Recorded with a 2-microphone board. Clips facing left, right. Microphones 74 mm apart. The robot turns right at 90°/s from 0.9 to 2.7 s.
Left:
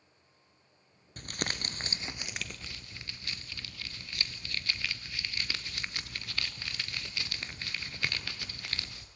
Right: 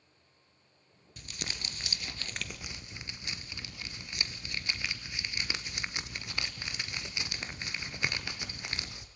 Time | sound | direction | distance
1.2 | crumpling | 65° left | 1.2 m